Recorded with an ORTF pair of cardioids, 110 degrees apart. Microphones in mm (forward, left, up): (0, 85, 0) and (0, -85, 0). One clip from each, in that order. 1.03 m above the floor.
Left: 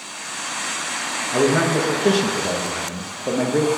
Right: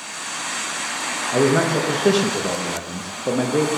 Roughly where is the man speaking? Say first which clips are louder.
Even; ahead.